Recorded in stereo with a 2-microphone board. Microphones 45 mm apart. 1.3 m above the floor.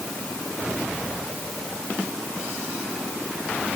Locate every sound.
Only background noise.